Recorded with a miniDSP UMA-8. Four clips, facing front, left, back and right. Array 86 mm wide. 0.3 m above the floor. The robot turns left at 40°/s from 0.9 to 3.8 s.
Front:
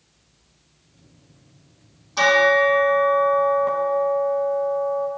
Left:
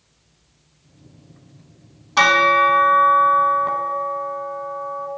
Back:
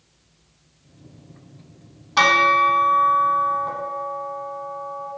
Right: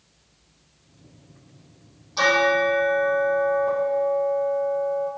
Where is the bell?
130° left, 0.9 m; by 5.1 s 65° left, 0.9 m.